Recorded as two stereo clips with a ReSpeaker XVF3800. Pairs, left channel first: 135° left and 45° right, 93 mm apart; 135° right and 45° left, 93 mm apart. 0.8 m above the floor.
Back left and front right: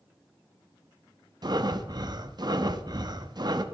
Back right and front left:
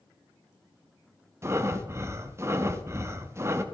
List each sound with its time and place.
1.4 s breathing: 10° right, 0.9 m